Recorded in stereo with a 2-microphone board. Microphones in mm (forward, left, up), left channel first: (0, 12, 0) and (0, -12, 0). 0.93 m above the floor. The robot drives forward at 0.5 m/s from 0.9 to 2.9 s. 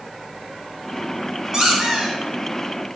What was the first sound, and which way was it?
A squeak, 25° right (ahead or behind).